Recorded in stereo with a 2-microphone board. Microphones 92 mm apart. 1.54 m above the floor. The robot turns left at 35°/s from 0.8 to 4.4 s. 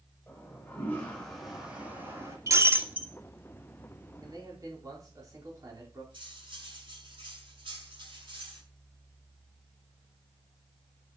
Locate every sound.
0.3 s a toilet flushing: 20° left, 7.5 m; by 2.4 s 35° right, 7.5 m
2.5 s breaking glass: 35° right (ahead or behind), 2 m; by 3.1 s 15° right (ahead or behind), 2 m
4.2 s a man speaking: 50° right (ahead or behind), 4.5 m; by 6.0 s 40° right (ahead or behind), 4.5 m
6.1 s cutlery clinking: 65° right (ahead or behind), 9 m